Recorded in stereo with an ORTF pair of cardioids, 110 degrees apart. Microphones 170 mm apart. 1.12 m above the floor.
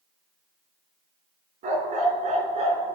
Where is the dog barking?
55° right, 3.5 m; by 3.0 s 35° right, 4 m.